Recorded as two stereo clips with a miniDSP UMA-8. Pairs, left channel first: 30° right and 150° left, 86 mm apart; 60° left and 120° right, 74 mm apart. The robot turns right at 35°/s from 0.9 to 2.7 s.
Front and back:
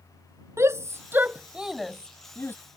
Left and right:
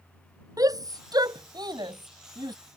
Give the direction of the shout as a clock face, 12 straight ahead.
5 o'clock.